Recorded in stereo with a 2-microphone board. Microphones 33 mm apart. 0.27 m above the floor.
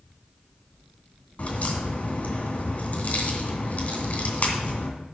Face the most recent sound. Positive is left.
turn(degrees=45)  # may be behind; listen again after turning